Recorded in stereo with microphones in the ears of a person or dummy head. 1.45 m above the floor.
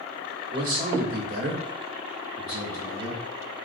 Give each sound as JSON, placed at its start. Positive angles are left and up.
{"t": 0.5, "sound": "a man speaking", "side_deg": -55, "distance_m": 1.0}